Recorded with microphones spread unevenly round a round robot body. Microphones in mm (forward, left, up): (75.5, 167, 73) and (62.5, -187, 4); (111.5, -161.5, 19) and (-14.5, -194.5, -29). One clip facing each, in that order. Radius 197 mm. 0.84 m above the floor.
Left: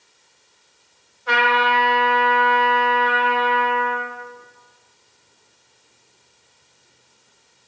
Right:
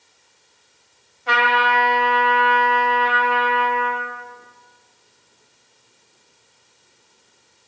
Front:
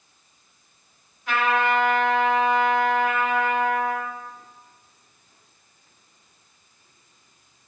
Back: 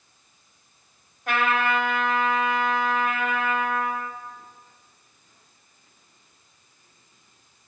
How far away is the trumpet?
About 1.3 m.